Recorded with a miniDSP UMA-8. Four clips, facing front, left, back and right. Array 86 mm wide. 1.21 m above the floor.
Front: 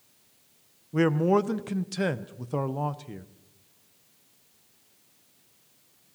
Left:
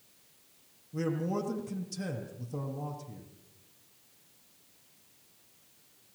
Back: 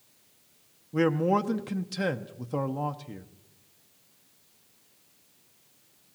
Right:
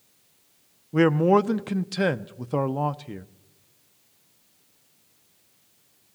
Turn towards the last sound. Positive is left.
turn(degrees=-85)